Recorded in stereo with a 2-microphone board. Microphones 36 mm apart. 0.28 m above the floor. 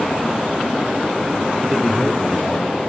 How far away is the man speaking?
About 7 m.